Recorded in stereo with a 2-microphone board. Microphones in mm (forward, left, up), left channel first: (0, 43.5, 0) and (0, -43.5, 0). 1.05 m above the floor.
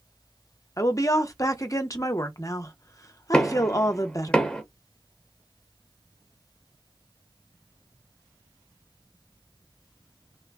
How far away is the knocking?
About 0.9 m.